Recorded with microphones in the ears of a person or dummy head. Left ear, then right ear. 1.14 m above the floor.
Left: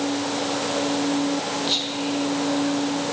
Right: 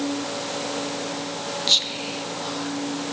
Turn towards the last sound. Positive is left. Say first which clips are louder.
# right 7 dB
turn(degrees=-25)  # may be behind; listen again after turning